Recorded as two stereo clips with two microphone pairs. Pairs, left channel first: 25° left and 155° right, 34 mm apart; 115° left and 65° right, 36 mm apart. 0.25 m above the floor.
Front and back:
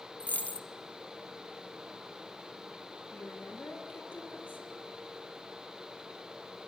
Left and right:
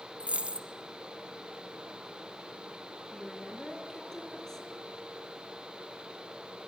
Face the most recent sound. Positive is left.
turn(degrees=40)